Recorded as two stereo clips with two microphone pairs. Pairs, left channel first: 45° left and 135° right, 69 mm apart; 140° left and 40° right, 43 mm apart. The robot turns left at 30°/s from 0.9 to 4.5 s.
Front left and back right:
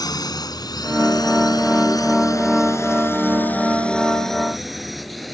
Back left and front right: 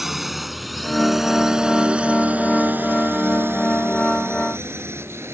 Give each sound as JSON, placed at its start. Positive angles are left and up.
{"t": 0.0, "sound": "a drone", "azimuth_deg": 45}